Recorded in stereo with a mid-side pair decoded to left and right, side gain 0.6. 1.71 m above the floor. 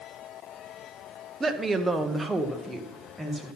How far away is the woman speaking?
About 1.1 m.